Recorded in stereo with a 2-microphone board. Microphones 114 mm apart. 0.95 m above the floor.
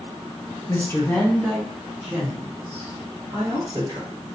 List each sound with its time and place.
0.7 s a woman speaking: 25° left (ahead or behind), 0.9 m; by 4.3 s 30° right (ahead or behind), 1.7 m